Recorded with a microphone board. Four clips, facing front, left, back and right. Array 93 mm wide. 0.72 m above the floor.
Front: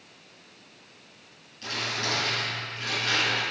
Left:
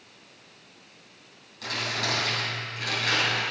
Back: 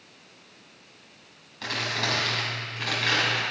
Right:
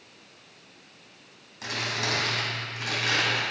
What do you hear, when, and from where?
1.6 s crumpling: 160° right, 3 m